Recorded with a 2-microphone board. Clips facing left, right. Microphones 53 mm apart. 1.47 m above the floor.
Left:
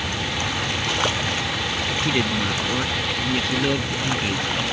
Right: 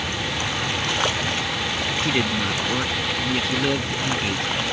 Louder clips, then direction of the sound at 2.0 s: Even; 5° right (ahead or behind).